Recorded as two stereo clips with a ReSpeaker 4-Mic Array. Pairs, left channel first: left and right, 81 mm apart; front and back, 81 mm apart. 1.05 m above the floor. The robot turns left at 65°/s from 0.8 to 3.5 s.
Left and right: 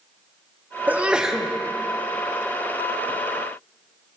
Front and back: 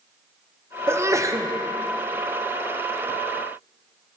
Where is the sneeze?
145° right, 0.6 m; by 1.5 s 175° left, 0.6 m.